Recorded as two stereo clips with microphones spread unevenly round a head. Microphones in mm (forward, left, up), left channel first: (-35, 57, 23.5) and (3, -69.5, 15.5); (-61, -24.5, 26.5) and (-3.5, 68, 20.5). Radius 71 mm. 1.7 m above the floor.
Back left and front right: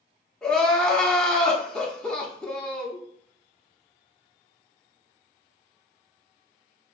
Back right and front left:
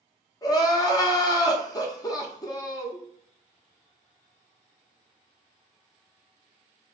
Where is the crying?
175° right, 0.7 m.